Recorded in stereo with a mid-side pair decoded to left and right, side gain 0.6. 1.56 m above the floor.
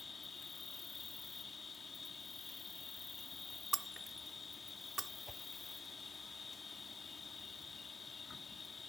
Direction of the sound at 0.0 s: 30° left.